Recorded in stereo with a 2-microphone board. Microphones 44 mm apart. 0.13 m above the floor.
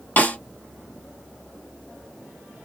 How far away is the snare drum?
About 1.4 m.